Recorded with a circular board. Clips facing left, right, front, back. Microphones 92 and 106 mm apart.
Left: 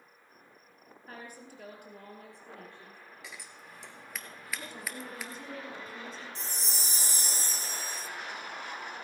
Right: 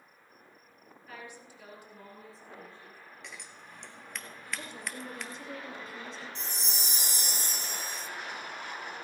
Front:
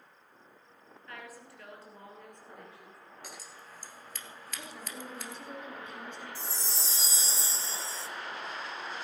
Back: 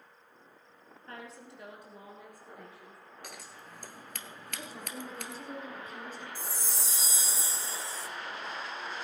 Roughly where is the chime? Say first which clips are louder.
Right 1 dB, even; ahead left.